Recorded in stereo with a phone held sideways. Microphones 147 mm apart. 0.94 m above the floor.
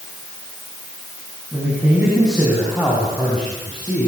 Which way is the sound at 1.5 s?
10° right (ahead or behind).